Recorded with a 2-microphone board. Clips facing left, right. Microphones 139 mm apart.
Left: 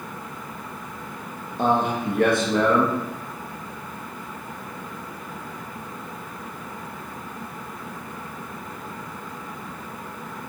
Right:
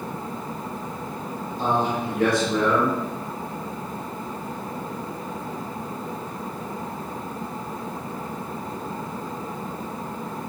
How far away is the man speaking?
About 0.7 m.